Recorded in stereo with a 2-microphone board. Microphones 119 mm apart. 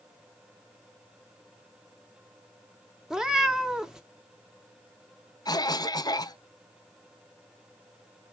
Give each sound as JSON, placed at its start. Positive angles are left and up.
{"t": 3.1, "sound": "a cat meowing", "side_deg": -5, "distance_m": 0.6}
{"t": 5.5, "sound": "a cough", "side_deg": 35, "distance_m": 0.6}